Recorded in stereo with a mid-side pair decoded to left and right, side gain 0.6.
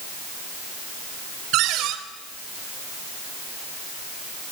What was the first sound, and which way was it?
A cupboard door, 70° right.